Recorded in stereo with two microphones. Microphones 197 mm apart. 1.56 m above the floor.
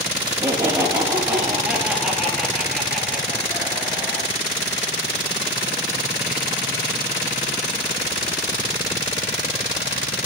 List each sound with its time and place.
0.2 s laughter: 20° right (ahead or behind), 3 m; by 4.3 s 10° left (ahead or behind), 4.5 m